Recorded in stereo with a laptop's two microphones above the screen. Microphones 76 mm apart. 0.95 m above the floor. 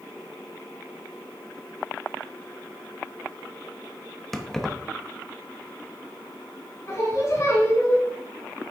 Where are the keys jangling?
5° left (ahead or behind), 0.6 m.